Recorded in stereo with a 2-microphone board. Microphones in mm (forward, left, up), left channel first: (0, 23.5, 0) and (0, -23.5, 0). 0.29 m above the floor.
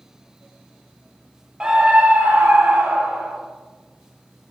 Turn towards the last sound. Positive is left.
turn(degrees=-55)  # may be behind; listen again after turning